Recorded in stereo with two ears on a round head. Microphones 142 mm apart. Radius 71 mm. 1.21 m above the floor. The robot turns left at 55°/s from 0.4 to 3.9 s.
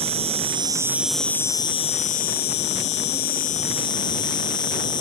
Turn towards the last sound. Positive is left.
turn(degrees=30)